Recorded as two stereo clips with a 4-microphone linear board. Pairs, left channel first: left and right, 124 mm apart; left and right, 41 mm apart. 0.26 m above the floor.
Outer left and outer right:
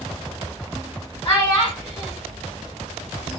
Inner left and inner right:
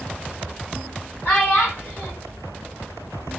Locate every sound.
1.2 s a child speaking: 45° left (ahead or behind), 1.6 m